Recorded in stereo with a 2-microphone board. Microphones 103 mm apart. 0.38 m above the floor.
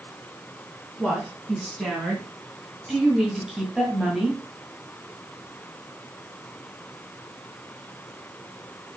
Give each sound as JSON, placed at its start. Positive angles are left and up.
{"t": 1.0, "sound": "a woman speaking", "side_deg": 0, "distance_m": 3.5}